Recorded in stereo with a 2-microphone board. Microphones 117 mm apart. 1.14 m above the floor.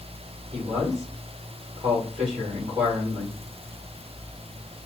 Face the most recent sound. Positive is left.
turn(degrees=-55)  # may be behind; listen again after turning